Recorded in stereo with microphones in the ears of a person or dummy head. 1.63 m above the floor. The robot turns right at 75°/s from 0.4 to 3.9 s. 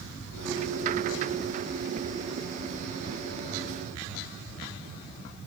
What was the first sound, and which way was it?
Only background noise.